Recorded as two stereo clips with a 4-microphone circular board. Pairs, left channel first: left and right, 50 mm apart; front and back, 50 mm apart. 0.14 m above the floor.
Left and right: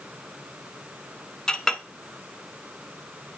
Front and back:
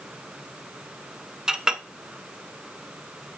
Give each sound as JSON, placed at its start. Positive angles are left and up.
{"t": 1.5, "sound": "a clink", "azimuth_deg": 135, "distance_m": 0.6}